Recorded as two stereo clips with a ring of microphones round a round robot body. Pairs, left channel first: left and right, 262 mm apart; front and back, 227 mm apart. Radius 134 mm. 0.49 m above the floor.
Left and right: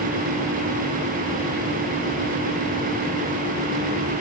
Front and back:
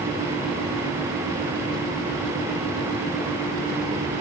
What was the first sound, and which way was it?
Only background noise.